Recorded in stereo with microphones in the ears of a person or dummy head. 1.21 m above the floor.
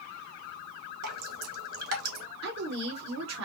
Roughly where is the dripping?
Right.